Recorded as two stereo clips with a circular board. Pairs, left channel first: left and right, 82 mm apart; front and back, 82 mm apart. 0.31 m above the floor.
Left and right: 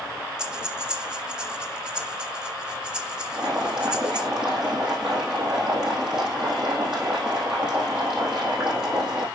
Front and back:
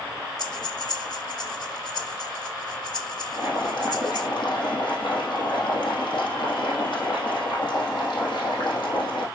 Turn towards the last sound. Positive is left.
turn(degrees=-10)